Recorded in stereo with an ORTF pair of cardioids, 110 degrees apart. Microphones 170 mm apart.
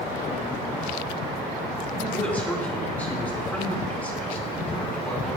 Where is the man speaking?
10° left, 5 m.